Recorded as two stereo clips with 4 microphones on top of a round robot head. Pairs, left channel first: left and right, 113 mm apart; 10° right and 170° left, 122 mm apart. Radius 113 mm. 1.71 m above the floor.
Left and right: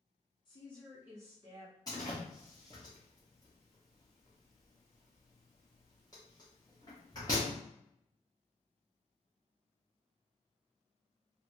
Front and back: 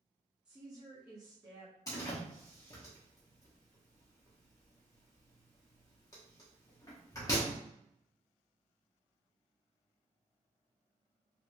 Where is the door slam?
35° left, 0.5 m.